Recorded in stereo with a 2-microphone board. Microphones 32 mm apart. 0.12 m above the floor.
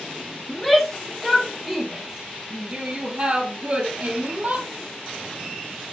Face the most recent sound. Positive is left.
turn(degrees=-50)  # may be behind; listen again after turning